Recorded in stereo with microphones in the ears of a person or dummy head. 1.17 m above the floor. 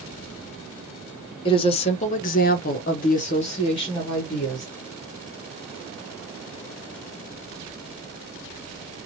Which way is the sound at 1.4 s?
25° left (ahead or behind).